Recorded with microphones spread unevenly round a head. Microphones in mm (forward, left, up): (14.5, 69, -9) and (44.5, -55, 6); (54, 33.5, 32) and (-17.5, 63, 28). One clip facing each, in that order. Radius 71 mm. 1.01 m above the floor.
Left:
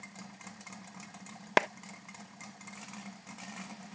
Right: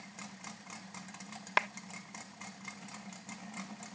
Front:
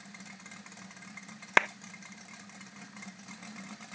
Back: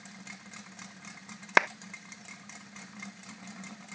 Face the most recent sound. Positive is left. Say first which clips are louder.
# left 6 dB, back 2 dB
turn(degrees=80)